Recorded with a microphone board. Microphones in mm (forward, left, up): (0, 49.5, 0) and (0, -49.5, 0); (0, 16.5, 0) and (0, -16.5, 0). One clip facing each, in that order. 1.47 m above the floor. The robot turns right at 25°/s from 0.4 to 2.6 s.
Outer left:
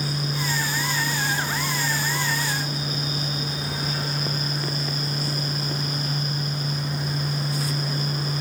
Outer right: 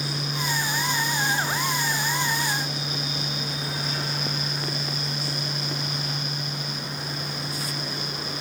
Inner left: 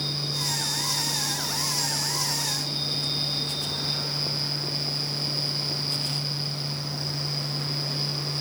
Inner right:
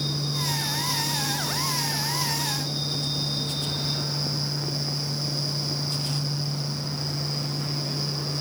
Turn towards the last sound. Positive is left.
No sound to turn to.